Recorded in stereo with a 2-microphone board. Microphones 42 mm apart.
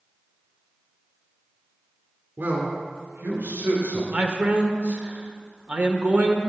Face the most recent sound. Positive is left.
turn(degrees=-40)  # may be behind; listen again after turning